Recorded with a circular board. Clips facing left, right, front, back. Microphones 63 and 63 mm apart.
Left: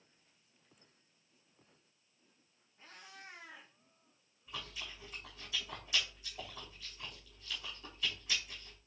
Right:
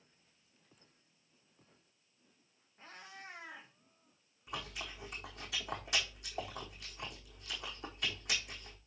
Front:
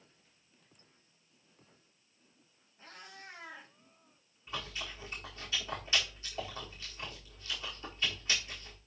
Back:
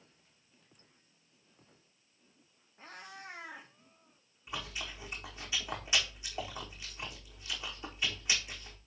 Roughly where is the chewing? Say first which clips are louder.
Right 3 dB, even; right.